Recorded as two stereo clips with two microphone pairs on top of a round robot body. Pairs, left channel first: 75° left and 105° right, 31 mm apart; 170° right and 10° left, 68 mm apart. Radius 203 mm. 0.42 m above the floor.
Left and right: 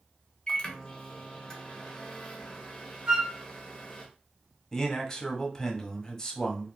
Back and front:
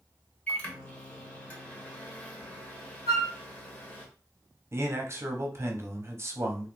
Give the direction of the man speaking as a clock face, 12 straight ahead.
11 o'clock.